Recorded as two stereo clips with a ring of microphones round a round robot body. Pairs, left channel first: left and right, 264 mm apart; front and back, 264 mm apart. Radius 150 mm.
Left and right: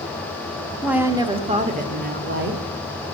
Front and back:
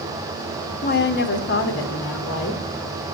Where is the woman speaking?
Straight ahead, 0.9 m; by 2.6 s 45° right, 1.7 m.